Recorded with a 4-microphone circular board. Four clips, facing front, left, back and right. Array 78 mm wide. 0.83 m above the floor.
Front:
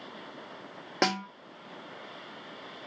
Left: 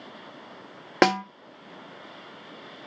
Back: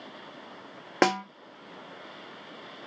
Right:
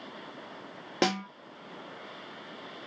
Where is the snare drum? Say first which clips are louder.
Left 8 dB, back 5 dB; 105° left, 0.6 m.